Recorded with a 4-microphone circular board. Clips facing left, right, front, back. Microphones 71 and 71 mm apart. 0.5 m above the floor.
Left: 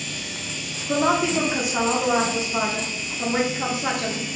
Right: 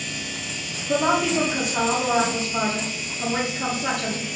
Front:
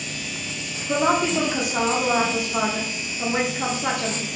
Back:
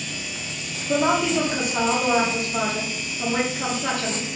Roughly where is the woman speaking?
Ahead left.